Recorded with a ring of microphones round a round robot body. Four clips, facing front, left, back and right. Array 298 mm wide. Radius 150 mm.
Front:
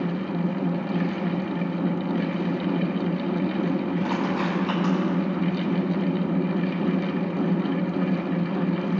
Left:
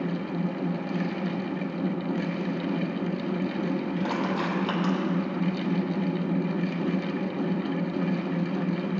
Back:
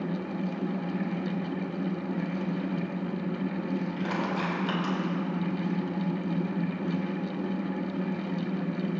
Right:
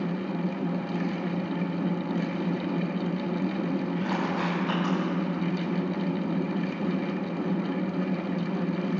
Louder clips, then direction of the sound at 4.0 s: Left 1 dB, front 5 dB; 120° left.